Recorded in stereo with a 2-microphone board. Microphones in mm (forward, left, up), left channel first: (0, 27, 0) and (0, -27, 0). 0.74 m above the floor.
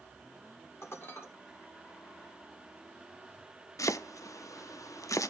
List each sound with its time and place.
0.8 s dishes clattering: 50° left (ahead or behind), 1.5 m
3.8 s chopping: 75° left (ahead or behind), 0.5 m